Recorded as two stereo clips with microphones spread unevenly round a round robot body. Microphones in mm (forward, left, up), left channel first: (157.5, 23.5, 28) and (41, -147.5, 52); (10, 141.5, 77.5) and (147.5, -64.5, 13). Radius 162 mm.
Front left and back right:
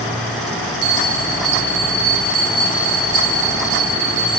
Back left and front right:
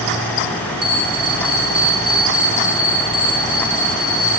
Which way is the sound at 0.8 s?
140° right.